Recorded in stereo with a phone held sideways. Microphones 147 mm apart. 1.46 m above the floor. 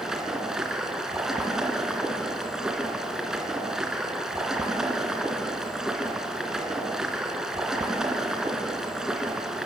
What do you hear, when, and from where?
0.0 s running water: 5° right (ahead or behind), 3 m